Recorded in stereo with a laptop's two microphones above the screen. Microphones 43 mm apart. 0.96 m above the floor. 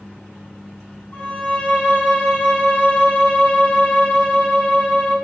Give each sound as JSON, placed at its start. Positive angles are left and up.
{"t": 1.1, "sound": "a violin", "side_deg": 45, "distance_m": 1.1}